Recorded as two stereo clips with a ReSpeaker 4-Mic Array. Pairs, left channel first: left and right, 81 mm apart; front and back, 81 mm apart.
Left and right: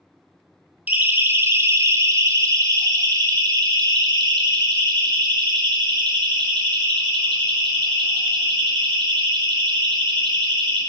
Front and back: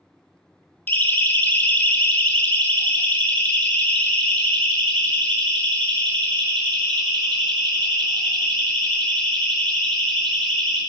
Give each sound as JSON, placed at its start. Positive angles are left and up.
{"t": 0.9, "sound": "a siren", "azimuth_deg": -40, "distance_m": 2.0}